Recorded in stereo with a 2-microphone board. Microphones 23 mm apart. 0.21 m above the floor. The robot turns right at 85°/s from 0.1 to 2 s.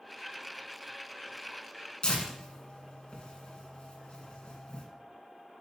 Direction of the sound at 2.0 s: 40° left (ahead or behind).